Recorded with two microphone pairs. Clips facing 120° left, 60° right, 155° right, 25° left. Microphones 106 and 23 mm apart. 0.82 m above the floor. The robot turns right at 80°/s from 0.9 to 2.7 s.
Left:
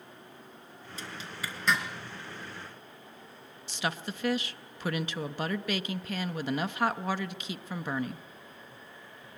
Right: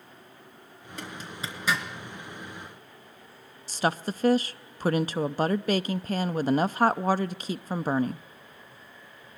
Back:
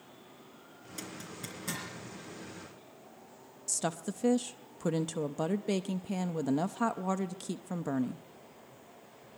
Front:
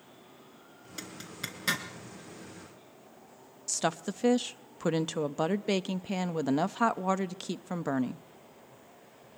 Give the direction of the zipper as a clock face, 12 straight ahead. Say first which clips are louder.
Right 3 dB, front 3 dB; 1 o'clock.